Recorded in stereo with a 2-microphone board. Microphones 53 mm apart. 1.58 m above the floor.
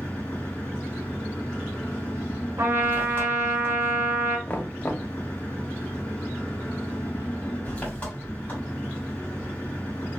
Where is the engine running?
25° left (ahead or behind), 1.9 m.